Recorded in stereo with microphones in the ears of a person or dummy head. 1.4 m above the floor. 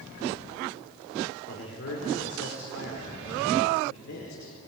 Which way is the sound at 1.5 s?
70° left (ahead or behind).